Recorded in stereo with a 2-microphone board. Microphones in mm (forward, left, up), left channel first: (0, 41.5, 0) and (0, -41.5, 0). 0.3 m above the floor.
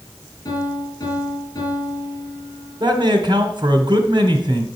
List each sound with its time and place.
0.5 s a piano: 45° left (ahead or behind), 5.5 m
2.8 s a man speaking: 60° right (ahead or behind), 1.8 m